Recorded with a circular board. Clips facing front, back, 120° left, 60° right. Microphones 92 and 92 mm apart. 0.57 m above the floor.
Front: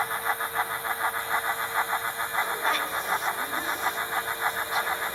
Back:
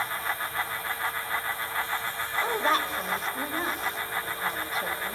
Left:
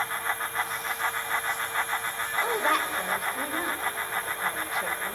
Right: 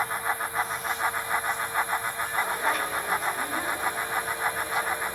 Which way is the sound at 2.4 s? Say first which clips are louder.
Back 3 dB, left 3 dB; 130° left.